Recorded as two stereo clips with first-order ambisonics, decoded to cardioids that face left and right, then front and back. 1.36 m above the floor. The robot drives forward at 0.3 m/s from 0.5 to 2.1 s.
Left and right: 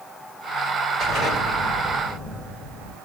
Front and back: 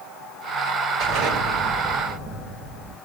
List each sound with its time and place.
1.0 s an explosion: 170° right, 7.5 m